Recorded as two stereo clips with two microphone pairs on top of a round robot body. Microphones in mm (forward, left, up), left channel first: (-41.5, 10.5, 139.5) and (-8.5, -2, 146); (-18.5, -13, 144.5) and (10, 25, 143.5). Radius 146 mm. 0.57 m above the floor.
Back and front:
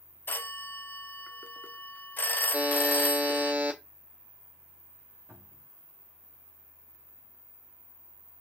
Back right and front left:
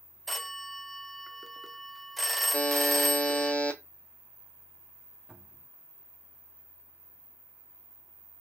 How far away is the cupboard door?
About 1.3 m.